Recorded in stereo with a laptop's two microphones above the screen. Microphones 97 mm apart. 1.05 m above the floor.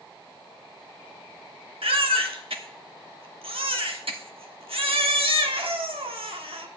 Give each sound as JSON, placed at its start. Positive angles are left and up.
{"t": 1.8, "sound": "a baby crying", "side_deg": -75, "distance_m": 1.2}